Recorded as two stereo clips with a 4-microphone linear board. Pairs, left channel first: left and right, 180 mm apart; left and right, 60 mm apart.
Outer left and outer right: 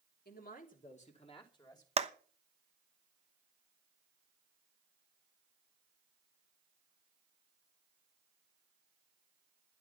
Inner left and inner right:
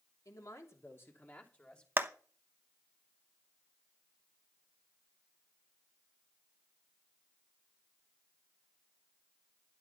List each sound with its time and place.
0.2 s a man speaking: 60° left (ahead or behind), 3 m; by 1.9 s 20° left (ahead or behind), 3 m
2.0 s a clap: 35° right (ahead or behind), 1.0 m